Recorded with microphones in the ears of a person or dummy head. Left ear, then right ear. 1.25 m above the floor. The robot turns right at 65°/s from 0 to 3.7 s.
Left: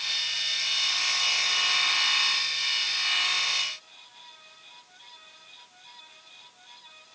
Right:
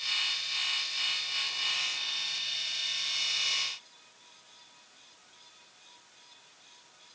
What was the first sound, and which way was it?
Only background noise.